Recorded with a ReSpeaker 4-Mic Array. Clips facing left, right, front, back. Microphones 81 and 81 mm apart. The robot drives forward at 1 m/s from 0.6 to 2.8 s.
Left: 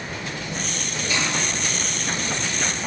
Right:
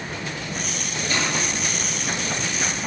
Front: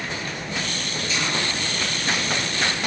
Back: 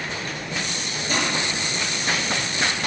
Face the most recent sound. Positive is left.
turn(degrees=-155)